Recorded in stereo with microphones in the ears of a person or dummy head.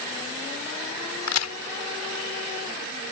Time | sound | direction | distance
1.3 | a crack | 80° left | ?